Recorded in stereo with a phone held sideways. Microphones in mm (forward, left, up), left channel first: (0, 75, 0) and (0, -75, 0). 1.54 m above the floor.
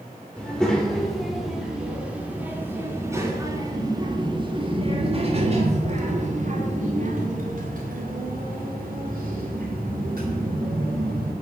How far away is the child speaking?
About 3.5 m.